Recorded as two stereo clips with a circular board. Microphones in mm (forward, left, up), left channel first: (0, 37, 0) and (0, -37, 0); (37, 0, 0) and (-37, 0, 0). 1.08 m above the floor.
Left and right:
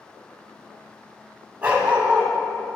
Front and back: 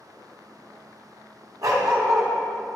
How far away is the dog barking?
About 1.8 m.